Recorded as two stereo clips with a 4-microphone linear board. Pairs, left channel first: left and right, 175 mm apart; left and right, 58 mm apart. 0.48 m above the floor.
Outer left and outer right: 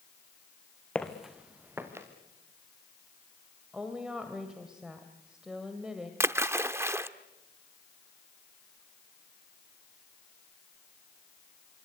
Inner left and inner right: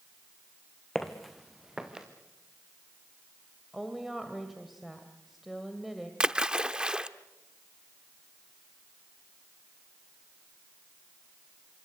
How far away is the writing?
No writing in this recording.